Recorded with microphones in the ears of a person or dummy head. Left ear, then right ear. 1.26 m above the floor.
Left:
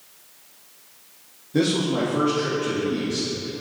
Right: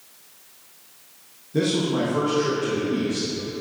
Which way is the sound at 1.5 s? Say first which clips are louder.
Left 1 dB; 15° left (ahead or behind).